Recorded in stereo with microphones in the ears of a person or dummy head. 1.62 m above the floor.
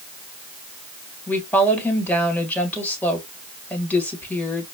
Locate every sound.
1.3 s a woman speaking: 10° left (ahead or behind), 1.6 m